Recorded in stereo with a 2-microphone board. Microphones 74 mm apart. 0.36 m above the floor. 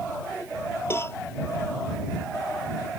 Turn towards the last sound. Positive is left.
turn(degrees=35)  # may be behind; listen again after turning